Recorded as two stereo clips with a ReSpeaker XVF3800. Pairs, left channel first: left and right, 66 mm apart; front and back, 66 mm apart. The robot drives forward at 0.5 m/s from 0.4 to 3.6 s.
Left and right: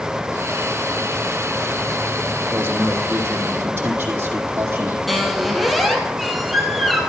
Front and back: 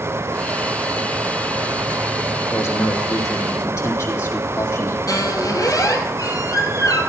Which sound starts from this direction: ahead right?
A man speaking, at 2.5 s.